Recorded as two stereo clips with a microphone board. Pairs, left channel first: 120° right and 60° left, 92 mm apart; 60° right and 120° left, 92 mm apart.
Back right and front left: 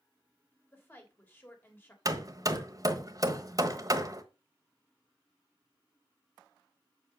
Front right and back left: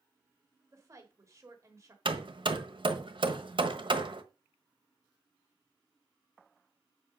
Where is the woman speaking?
175° left, 3 m.